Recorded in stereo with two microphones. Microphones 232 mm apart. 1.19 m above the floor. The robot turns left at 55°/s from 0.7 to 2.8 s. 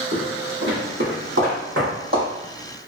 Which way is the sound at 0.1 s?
55° right (ahead or behind).